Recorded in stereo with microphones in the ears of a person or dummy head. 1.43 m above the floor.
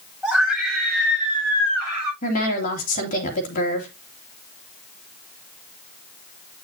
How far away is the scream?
About 8 m.